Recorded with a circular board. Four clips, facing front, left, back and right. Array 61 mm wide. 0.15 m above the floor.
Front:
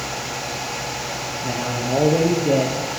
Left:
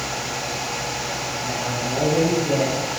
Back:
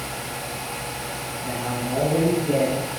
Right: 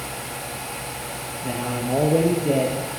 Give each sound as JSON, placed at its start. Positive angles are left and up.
{"t": 1.4, "sound": "a man speaking", "azimuth_deg": -40, "distance_m": 3.0}